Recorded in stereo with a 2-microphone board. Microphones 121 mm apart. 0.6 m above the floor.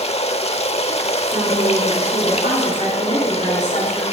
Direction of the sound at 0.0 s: 60° left (ahead or behind).